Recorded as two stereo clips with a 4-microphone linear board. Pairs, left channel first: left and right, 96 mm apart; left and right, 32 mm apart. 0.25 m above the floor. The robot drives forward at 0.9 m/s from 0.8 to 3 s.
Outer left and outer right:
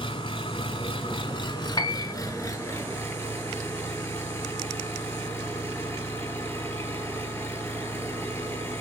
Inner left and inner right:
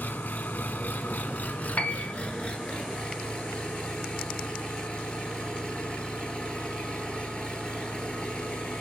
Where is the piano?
45° left (ahead or behind), 0.7 m; by 2.1 s 50° left (ahead or behind), 0.7 m.